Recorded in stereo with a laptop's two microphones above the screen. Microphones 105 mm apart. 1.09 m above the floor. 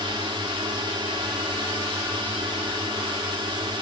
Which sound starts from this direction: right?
A drone, at 0.0 s.